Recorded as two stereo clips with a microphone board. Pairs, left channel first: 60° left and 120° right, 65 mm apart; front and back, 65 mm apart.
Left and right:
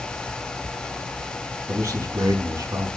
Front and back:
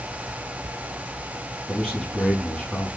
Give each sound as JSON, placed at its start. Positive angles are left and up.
{"t": 1.7, "sound": "a man speaking", "azimuth_deg": -80, "distance_m": 6.0}